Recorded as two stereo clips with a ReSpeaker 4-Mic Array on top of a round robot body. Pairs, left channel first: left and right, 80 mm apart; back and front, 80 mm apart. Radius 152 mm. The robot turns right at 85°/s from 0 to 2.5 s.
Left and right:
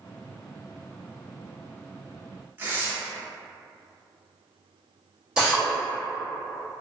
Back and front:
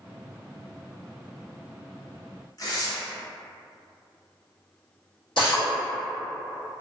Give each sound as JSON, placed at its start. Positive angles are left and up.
{"t": 2.6, "sound": "tearing paper", "azimuth_deg": -150, "distance_m": 1.2}
{"t": 5.4, "sound": "a drill", "azimuth_deg": -170, "distance_m": 2.0}